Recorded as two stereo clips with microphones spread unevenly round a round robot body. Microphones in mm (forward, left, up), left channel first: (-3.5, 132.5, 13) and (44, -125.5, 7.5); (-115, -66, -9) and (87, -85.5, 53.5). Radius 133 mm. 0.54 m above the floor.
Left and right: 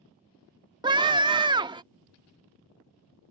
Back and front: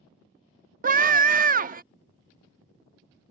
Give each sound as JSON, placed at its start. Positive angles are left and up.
{"t": 0.8, "sound": "a scream", "azimuth_deg": -35}